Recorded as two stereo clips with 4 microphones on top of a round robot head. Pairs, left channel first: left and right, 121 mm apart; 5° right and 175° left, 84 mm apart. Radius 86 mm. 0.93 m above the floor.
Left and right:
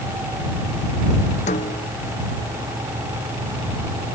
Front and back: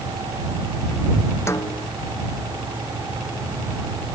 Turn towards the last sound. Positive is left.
turn(degrees=50)